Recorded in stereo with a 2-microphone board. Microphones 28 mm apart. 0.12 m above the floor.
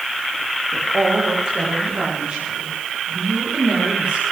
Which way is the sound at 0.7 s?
30° right (ahead or behind).